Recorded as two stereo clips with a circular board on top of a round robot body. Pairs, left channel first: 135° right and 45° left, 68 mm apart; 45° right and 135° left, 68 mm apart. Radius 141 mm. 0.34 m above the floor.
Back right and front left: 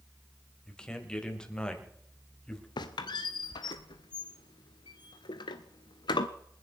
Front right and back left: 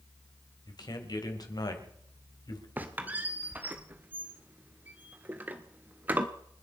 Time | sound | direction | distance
0.7 | a man speaking | 60° right | 3 m
2.8 | a squeak | 155° right | 0.5 m